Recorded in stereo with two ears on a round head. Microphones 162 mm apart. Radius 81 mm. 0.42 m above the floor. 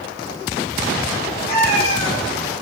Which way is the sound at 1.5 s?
60° left (ahead or behind).